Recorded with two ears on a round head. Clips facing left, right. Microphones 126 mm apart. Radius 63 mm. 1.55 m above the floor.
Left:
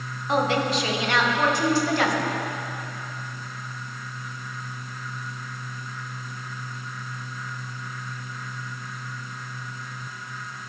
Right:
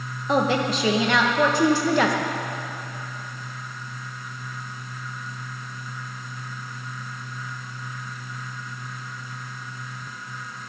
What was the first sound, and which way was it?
A woman speaking, 80° right.